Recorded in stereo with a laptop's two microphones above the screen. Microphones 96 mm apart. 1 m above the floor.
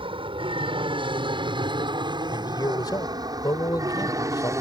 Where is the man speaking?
45° left (ahead or behind).